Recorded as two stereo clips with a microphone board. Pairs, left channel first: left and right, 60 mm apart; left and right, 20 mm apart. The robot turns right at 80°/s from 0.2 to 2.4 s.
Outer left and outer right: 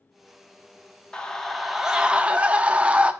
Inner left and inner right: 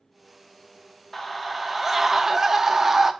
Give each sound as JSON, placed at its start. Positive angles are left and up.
{"t": 1.1, "sound": "a scream", "side_deg": 15, "distance_m": 0.7}